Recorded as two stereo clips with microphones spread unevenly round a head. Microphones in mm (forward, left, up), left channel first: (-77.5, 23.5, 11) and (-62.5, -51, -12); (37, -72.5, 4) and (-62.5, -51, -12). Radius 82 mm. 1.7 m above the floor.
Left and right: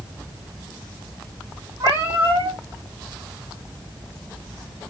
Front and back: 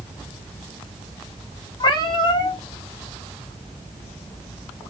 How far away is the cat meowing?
About 1.3 m.